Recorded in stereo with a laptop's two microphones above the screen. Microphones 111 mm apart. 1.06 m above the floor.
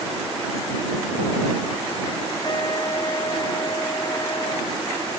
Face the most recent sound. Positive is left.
turn(degrees=45)  # may be behind; listen again after turning